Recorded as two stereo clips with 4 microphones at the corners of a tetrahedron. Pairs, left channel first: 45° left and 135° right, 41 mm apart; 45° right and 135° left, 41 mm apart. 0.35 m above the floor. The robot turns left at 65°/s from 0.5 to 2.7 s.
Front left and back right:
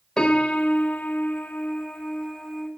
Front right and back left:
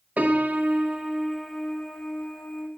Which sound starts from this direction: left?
A piano, at 0.2 s.